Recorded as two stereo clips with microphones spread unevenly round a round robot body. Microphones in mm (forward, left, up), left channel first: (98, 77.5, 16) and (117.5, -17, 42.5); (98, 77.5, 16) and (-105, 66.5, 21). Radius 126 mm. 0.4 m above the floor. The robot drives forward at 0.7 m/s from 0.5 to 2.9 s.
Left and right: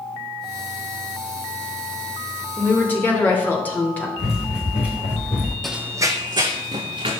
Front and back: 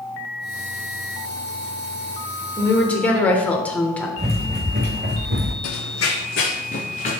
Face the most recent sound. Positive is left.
turn(degrees=-65)